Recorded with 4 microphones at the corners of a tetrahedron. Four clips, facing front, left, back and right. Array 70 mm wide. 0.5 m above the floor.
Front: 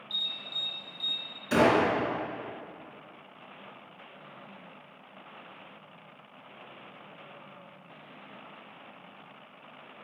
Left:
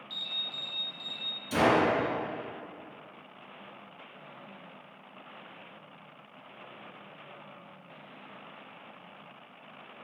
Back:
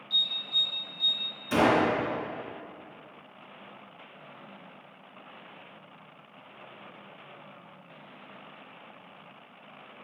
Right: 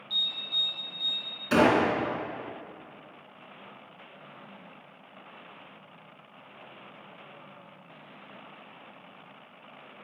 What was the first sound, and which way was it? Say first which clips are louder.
An alarm: right 6 dB, back 6 dB; 100° left.